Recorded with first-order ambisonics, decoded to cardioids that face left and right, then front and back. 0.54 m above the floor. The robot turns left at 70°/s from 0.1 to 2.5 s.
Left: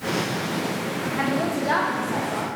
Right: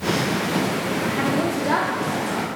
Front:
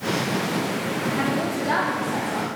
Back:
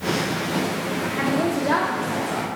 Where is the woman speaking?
75° right, 0.8 m; by 2.5 s 170° right, 0.8 m.